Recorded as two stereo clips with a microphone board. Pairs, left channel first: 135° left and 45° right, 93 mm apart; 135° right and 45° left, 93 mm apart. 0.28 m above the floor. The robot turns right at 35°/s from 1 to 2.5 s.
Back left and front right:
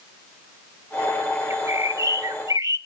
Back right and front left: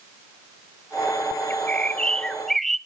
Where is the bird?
85° right, 0.6 m; by 2.8 s 50° right, 0.6 m.